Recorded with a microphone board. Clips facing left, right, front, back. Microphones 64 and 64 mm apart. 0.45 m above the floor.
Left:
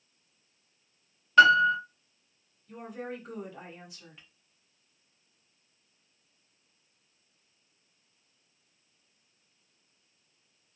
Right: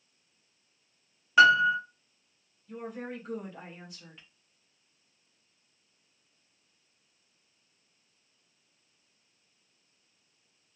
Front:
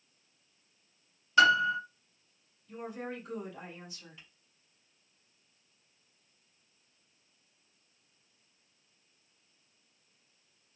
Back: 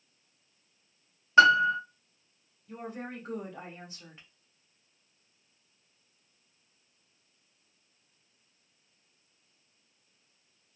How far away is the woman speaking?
About 1.3 m.